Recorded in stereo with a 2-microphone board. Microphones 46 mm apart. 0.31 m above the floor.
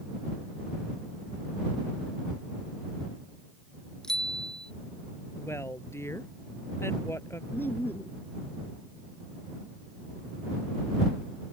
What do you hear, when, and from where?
4.0 s a bicycle bell: 15° left (ahead or behind)
5.4 s a woman speaking: 70° left (ahead or behind)
7.5 s laughter: 50° left (ahead or behind)